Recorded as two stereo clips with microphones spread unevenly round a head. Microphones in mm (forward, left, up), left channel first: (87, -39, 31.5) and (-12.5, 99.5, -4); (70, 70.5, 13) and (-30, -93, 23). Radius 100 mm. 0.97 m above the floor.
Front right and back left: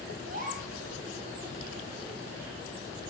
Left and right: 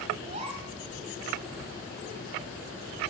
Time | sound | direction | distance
0.2 | a gasp | straight behind | 2.5 m